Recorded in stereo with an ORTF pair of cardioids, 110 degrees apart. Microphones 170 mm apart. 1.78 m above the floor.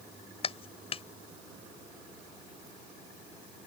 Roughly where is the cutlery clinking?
I don't hear cutlery clinking.